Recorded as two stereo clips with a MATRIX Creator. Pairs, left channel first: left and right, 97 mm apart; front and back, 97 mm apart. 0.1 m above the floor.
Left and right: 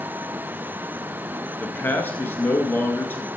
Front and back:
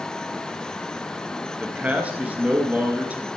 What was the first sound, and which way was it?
A man speaking, 125° left.